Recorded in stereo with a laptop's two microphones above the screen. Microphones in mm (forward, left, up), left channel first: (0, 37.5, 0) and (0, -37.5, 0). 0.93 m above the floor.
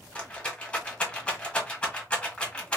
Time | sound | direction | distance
0.1 | a rattle | 15° left (ahead or behind) | 1.4 m